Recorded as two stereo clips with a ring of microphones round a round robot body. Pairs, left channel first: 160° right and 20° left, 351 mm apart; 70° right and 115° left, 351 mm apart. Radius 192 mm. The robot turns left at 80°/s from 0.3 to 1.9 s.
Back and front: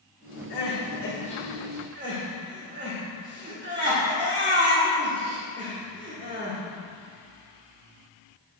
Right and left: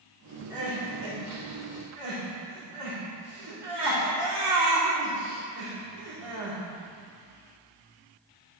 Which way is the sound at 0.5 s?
165° right.